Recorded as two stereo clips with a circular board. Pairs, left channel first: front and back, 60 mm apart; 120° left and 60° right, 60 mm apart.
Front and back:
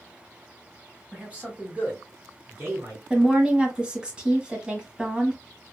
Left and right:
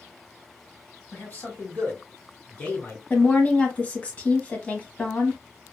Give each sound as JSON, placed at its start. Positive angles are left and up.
{"t": 1.1, "sound": "a man speaking", "azimuth_deg": 125, "distance_m": 1.9}
{"t": 3.1, "sound": "a woman speaking", "azimuth_deg": 130, "distance_m": 1.1}